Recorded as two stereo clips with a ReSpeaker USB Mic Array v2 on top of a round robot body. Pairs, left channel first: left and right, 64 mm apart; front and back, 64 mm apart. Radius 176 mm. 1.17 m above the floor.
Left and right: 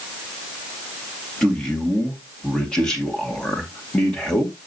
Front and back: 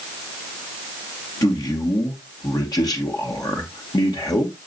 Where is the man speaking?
10° left, 2 m.